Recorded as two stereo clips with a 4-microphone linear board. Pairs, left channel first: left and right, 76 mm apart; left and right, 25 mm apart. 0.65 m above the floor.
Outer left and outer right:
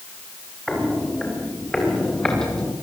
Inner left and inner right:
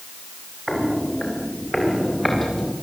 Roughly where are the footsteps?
Centre.